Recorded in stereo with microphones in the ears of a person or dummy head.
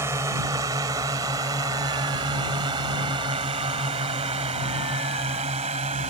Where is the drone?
15° right (ahead or behind); by 6.1 s 30° right (ahead or behind).